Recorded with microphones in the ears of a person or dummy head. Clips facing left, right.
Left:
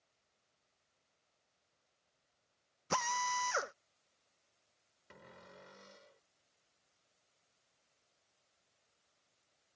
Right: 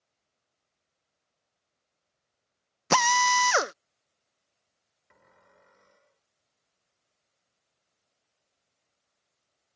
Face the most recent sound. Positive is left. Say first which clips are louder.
# left 6 dB
turn(degrees=45)  # may be behind; listen again after turning